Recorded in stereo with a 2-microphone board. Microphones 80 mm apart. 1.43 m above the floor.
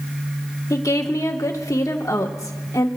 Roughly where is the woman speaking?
Left.